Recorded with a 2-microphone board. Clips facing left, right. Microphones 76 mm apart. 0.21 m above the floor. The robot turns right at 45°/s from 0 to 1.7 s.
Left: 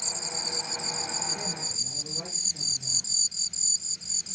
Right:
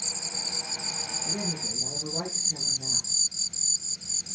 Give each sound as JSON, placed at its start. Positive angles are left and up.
{"t": 1.2, "sound": "a woman speaking", "side_deg": -70, "distance_m": 7.5}